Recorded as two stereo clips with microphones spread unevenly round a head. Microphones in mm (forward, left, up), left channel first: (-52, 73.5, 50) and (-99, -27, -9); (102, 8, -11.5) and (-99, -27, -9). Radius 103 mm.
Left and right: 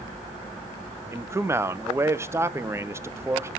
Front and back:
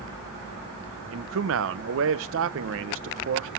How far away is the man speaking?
About 0.7 m.